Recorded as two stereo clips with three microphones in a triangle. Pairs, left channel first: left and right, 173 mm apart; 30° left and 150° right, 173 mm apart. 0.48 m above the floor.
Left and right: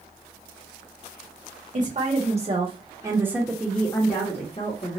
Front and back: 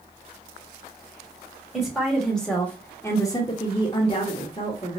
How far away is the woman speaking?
About 1.4 m.